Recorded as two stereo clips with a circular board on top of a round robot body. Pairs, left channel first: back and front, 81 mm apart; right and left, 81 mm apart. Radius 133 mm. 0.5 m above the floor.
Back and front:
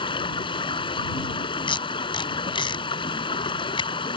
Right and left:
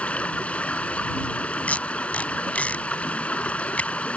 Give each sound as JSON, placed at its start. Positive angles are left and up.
{"t": 0.0, "sound": "running water", "azimuth_deg": -165}
{"t": 1.7, "sound": "tape being pulled", "azimuth_deg": -165}